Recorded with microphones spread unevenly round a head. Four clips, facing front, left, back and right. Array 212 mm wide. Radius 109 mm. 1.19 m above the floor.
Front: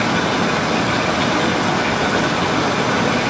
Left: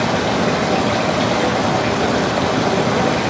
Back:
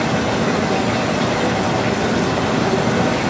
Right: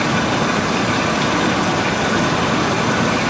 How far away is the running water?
About 4.5 m.